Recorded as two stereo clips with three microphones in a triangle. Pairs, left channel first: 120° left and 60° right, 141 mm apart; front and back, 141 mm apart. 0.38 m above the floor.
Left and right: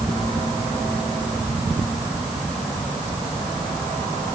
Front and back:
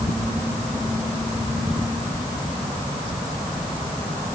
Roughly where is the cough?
No cough in this recording.